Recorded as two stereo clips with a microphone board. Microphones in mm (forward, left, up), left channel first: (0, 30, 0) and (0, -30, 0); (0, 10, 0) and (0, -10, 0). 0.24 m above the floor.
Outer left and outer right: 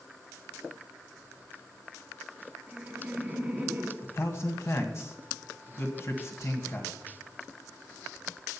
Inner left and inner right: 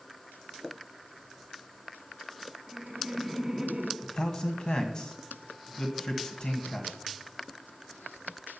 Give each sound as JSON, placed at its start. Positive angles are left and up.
{"t": 2.7, "sound": "laughter", "side_deg": -10, "distance_m": 5.0}
{"t": 4.0, "sound": "a man speaking", "side_deg": 45, "distance_m": 2.0}